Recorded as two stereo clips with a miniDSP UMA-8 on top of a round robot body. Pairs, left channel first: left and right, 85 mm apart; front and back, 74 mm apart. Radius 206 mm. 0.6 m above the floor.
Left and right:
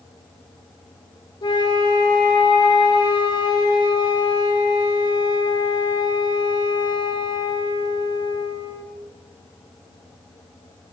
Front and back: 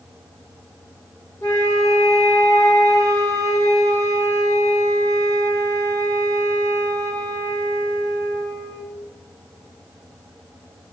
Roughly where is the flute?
Ahead left.